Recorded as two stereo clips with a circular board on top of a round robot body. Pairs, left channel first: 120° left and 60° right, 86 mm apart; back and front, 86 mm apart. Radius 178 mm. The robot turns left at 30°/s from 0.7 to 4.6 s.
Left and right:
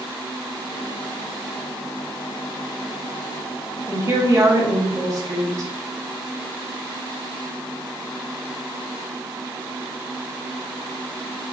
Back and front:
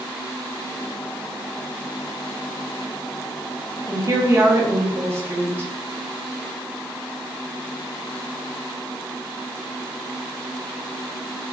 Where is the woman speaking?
20° right, 0.7 m; by 5.7 s 40° right, 0.7 m.